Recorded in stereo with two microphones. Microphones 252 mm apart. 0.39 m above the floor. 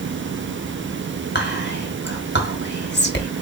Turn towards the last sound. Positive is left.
turn(degrees=45)  # may be behind; listen again after turning